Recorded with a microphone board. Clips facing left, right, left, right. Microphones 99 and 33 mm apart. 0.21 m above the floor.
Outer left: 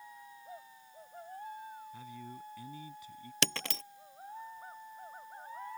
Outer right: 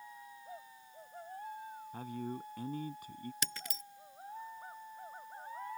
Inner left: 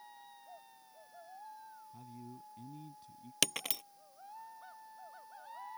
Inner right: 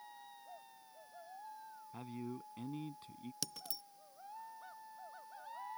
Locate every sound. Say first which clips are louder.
1.9 s a man speaking: outer right 5 dB, inner right 8 dB; 50° right (ahead or behind)
3.4 s breaking glass: outer left 7 dB, inner left 16 dB; 85° left